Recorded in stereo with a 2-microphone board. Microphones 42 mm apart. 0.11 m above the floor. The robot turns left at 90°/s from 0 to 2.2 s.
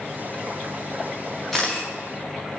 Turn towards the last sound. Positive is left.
turn(degrees=120)